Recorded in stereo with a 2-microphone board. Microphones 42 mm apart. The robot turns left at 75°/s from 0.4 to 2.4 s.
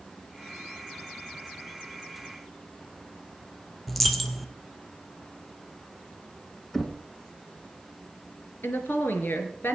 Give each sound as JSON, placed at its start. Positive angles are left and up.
{"t": 3.9, "sound": "a dropped coin", "side_deg": 0, "distance_m": 1.1}
{"t": 6.7, "sound": "knocking", "side_deg": 10, "distance_m": 1.1}
{"t": 8.6, "sound": "a woman speaking", "side_deg": 60, "distance_m": 2.5}